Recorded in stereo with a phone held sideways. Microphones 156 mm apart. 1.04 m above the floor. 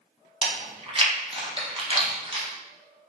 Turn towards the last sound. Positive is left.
turn(degrees=-35)  # may be behind; listen again after turning